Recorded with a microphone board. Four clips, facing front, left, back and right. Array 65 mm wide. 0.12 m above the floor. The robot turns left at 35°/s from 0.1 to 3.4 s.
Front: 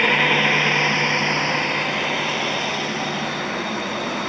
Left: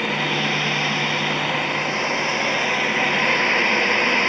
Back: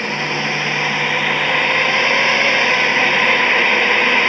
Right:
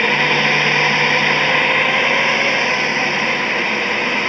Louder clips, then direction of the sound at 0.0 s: Right 7 dB, front 3 dB; 65° right.